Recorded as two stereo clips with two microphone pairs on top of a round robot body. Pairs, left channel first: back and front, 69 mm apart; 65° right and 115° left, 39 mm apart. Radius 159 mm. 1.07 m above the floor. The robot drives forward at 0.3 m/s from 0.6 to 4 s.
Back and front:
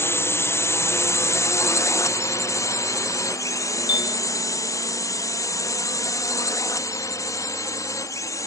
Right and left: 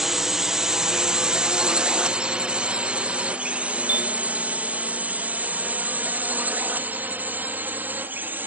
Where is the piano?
165° left.